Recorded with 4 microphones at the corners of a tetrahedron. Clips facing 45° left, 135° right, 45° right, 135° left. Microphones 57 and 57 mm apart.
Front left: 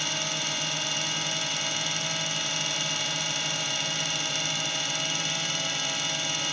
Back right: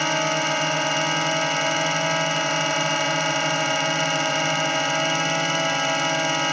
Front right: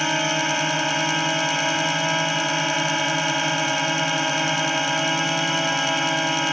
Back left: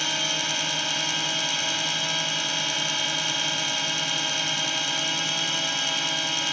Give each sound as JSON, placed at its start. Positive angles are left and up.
{"t": 0.0, "sound": "a drone", "azimuth_deg": -95}